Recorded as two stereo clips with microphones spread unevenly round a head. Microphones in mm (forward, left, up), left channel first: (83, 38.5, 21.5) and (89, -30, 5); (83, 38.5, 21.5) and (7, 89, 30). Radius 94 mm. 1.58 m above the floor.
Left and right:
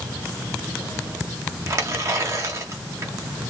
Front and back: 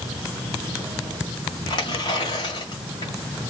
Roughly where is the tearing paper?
Ahead right.